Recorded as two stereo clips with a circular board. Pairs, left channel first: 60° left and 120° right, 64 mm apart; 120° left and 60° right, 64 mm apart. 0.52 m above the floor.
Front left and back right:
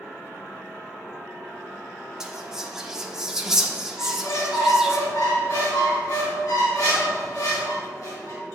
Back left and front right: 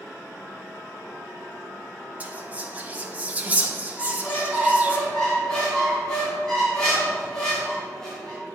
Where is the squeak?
40° left, 2.5 m.